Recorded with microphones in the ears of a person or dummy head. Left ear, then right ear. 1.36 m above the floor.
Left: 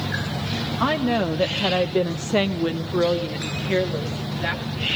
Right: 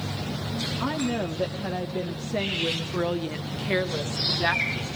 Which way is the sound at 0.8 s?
75° left (ahead or behind).